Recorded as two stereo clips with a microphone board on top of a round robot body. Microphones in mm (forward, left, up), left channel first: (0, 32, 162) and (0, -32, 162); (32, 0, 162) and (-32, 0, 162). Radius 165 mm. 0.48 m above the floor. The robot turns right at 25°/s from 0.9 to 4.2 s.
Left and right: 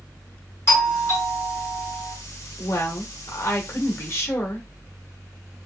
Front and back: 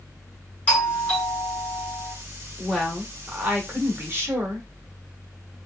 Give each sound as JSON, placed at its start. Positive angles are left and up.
{"t": 0.7, "sound": "a doorbell", "azimuth_deg": 55, "distance_m": 2.5}
{"t": 2.6, "sound": "a woman speaking", "azimuth_deg": 90, "distance_m": 1.8}